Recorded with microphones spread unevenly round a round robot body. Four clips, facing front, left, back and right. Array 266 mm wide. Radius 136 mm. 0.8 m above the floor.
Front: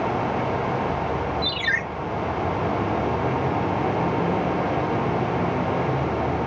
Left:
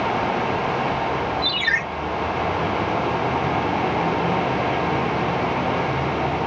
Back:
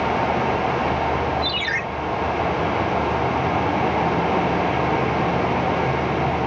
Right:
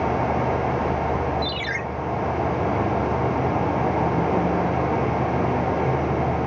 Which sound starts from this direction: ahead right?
A ringtone, at 1.4 s.